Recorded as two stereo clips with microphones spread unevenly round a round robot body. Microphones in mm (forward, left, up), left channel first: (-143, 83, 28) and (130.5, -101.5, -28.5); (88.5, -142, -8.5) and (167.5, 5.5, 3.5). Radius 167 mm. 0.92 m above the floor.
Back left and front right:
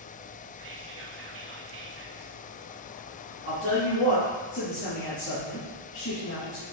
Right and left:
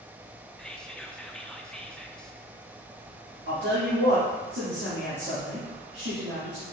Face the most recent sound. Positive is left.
turn(degrees=95)